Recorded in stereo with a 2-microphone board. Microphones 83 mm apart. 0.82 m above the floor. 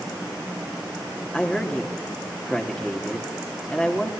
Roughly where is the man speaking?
Centre.